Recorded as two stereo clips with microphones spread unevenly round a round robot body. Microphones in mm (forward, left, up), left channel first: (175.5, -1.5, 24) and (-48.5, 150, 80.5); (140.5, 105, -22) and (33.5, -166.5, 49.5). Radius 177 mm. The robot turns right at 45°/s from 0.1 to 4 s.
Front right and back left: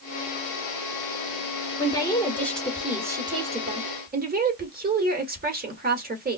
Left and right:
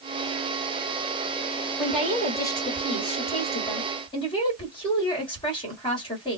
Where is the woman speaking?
5° right, 1.6 m; by 6.4 s 95° left, 1.6 m.